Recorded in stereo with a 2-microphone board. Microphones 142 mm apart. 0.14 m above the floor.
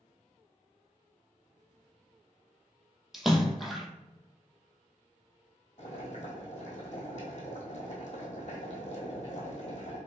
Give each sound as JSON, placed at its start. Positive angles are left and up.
{"t": 3.1, "sound": "a splash", "side_deg": 0, "distance_m": 0.7}
{"t": 5.8, "sound": "boiling", "side_deg": 50, "distance_m": 1.8}